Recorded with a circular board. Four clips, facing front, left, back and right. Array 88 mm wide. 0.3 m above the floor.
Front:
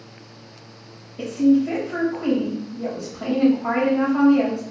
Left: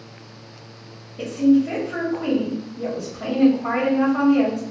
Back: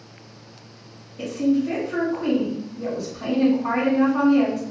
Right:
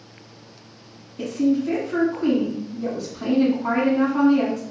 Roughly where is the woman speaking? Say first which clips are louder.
Left 4 dB, front 4 dB; ahead left.